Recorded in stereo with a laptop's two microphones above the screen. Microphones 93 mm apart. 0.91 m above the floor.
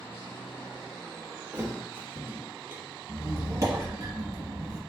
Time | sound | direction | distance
1.5 | a thud | 20° right (ahead or behind) | 0.7 m
3.1 | a squeak | 35° right (ahead or behind) | 1.0 m